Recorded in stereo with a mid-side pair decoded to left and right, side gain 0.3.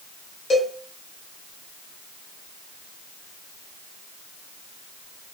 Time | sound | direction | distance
0.5 | a cowbell | 65° left | 1.3 m